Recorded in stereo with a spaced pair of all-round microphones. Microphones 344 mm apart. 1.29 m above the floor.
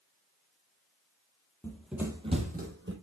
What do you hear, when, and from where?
1.6 s running footsteps: 5° left (ahead or behind), 1.5 m; by 2.9 s 35° right (ahead or behind), 2.0 m